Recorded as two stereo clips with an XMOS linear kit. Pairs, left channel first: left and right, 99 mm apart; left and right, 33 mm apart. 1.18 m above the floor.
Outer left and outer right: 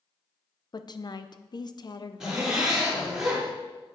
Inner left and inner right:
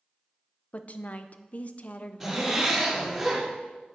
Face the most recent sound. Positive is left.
turn(degrees=-5)  # may be behind; listen again after turning